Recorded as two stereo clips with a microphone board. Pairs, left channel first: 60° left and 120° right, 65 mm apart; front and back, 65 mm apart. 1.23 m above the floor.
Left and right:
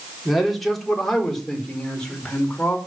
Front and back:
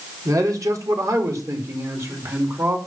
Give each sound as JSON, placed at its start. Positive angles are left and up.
{"t": 0.2, "sound": "a man speaking", "azimuth_deg": 150, "distance_m": 4.5}